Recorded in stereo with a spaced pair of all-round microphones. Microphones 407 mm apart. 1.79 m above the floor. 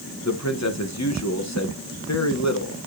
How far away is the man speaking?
About 1.2 m.